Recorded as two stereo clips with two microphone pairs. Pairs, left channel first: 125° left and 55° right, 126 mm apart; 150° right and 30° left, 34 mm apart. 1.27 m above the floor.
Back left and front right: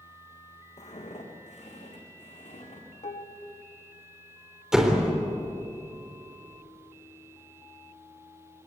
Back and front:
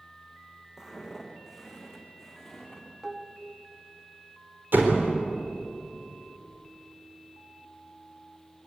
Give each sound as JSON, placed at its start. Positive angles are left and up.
{"t": 0.8, "sound": "footsteps", "azimuth_deg": 110, "distance_m": 4.0}
{"t": 3.0, "sound": "dishes clattering", "azimuth_deg": 110, "distance_m": 1.3}
{"t": 4.7, "sound": "a door slam", "azimuth_deg": 30, "distance_m": 3.5}